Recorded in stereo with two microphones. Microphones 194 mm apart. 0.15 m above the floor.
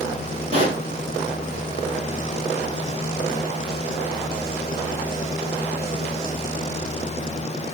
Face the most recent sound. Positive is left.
turn(degrees=-35)  # may be behind; listen again after turning